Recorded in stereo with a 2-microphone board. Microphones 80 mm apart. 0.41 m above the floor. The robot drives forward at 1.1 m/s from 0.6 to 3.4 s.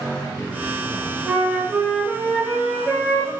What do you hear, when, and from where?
1.3 s a flute: 10° right (ahead or behind), 1.3 m; by 3.3 s 5° right (ahead or behind), 3.5 m